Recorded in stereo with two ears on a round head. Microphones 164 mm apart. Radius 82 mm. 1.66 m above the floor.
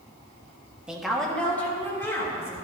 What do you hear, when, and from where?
0.9 s a woman speaking: 5° right (ahead or behind), 1.4 m; by 2.5 s 15° left (ahead or behind), 3.5 m